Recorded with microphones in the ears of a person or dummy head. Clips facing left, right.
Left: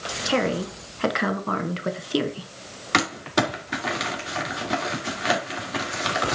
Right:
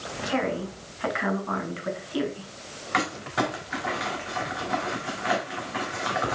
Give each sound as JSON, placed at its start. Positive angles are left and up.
{"t": 0.2, "sound": "a woman speaking", "side_deg": 60, "distance_m": 1.0}
{"t": 2.9, "sound": "crumpling", "side_deg": 60, "distance_m": 2.0}